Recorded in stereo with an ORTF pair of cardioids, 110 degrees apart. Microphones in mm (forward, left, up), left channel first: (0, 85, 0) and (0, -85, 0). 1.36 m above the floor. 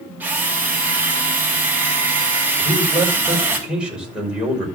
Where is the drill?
10° right, 3.5 m.